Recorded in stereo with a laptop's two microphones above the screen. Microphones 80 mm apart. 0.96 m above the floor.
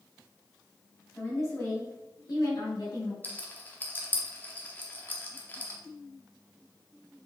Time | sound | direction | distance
1.1 | a woman speaking | 30° left (ahead or behind) | 2 m
3.2 | a rattle | 25° left (ahead or behind) | 0.7 m